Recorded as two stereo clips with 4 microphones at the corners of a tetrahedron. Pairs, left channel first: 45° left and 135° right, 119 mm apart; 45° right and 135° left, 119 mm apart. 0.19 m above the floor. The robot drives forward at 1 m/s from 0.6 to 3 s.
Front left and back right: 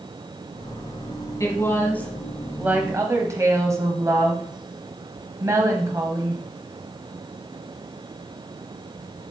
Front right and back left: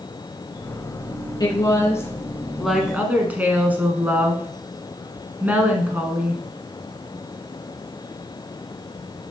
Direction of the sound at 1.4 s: 10° right.